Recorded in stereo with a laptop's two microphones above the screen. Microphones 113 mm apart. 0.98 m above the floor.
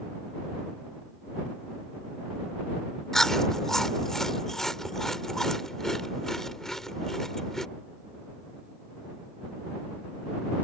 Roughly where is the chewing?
Centre.